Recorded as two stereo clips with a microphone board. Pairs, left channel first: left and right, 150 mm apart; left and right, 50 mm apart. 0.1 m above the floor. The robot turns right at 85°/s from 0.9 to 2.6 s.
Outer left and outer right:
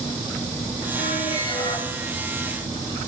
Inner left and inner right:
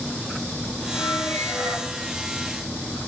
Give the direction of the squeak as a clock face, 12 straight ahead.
9 o'clock.